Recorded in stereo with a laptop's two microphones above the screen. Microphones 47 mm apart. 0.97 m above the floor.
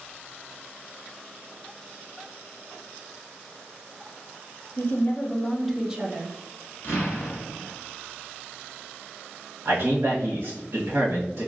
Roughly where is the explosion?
Left.